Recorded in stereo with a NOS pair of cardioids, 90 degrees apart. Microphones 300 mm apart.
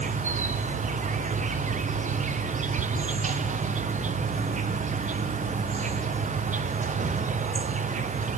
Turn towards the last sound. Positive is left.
turn(degrees=-25)